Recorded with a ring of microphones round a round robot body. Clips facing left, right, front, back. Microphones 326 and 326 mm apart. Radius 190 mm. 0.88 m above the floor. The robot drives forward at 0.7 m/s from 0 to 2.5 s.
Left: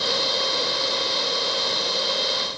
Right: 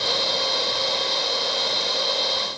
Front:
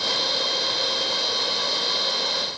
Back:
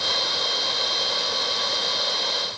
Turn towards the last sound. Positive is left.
No sound to turn to.